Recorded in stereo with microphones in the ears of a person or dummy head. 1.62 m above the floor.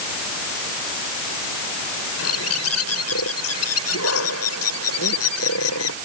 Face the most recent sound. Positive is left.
turn(degrees=85)